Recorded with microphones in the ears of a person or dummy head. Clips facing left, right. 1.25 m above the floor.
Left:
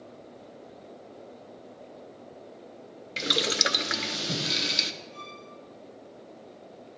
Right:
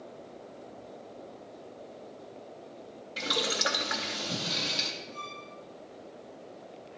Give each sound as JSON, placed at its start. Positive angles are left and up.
{"t": 3.2, "sound": "boiling", "side_deg": 30, "distance_m": 0.5}
{"t": 5.1, "sound": "a violin", "side_deg": 35, "distance_m": 3.0}